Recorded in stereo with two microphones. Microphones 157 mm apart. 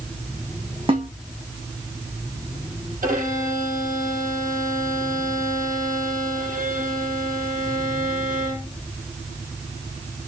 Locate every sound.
0.9 s a snare drum: 40° right (ahead or behind), 1.7 m
3.0 s a violin: 70° right (ahead or behind), 5.5 m